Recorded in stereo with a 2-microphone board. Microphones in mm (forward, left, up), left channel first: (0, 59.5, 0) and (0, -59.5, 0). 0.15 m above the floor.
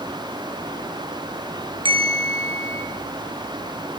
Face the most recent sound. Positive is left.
turn(degrees=-50)  # may be behind; listen again after turning